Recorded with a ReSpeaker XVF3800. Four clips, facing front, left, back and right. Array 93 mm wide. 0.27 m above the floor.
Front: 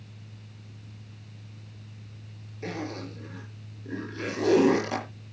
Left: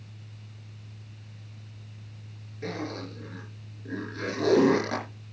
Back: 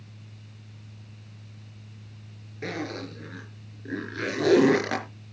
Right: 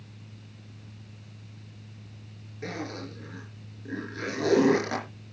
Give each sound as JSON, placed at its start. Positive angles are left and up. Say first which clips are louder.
{"t": 2.6, "sound": "a zipper", "louder": "left 1 dB, back 2 dB", "azimuth_deg": -170, "distance_m": 4.5}